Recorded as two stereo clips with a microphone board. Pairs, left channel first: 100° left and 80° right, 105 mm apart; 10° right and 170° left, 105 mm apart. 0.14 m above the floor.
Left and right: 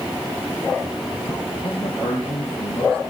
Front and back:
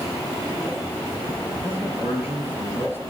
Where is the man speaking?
100° left, 3.5 m.